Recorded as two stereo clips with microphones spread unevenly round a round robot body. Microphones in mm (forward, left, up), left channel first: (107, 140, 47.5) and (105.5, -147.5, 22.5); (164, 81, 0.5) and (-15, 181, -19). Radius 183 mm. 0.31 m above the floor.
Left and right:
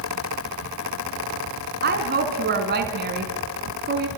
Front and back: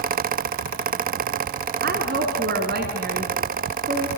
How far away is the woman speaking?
About 3 m.